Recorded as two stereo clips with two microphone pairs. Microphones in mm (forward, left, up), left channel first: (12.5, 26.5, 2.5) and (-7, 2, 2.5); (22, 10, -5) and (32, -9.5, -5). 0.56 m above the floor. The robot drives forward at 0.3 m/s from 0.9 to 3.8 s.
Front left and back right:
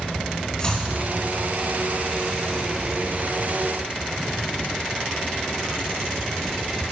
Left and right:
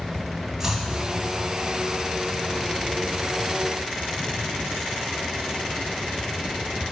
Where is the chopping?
Straight ahead, 1.6 m.